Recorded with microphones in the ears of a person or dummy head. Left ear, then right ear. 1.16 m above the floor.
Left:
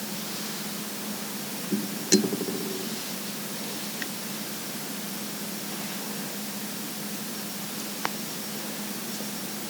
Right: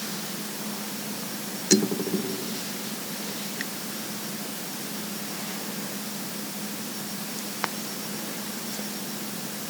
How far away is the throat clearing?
No throat clearing in this recording.